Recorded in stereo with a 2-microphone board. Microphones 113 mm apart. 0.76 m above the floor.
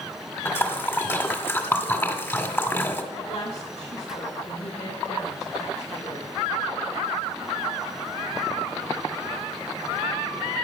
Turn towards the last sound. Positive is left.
turn(degrees=80)